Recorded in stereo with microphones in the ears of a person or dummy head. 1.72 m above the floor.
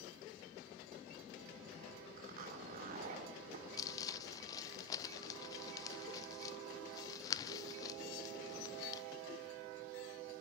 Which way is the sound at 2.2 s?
50° right (ahead or behind).